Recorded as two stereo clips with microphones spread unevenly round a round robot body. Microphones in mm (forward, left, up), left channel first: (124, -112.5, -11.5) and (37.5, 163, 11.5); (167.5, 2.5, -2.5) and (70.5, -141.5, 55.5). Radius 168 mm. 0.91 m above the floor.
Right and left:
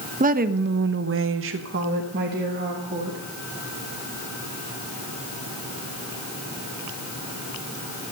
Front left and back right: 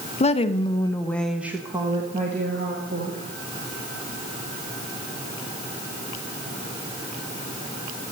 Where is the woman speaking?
45° left, 1.1 m; by 3.2 s straight behind, 1.9 m.